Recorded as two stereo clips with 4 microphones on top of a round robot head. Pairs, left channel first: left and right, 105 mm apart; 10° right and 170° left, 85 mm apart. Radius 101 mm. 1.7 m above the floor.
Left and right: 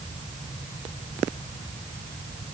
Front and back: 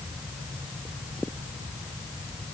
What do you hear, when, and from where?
Only background noise.